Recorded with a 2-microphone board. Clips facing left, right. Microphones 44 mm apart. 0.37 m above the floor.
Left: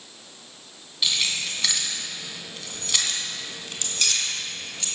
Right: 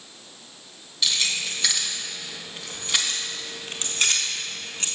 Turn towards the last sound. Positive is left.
turn(degrees=-40)  # may be behind; listen again after turning